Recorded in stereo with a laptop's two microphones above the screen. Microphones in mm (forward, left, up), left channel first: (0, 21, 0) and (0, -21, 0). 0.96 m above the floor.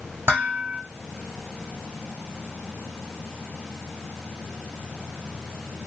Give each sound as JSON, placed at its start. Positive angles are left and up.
{"t": 0.3, "sound": "dishes clattering", "side_deg": -65, "distance_m": 1.2}